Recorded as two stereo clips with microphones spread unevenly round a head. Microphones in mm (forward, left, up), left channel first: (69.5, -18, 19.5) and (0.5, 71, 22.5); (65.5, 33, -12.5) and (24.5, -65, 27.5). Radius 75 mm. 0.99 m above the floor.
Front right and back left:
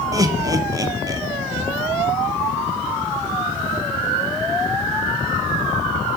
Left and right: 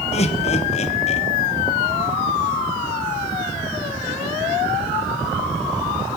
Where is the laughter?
70° left, 1.2 m.